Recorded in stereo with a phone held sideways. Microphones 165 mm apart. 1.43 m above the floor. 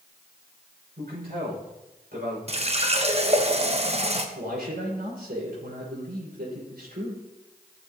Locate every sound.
1.0 s a man speaking: 75° right (ahead or behind), 5.5 m
2.5 s a running tap: 40° right (ahead or behind), 0.9 m
4.3 s a man speaking: 80° right, 5 m